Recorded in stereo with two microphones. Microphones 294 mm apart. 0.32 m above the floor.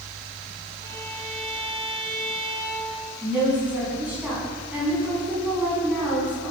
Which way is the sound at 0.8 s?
10° left (ahead or behind).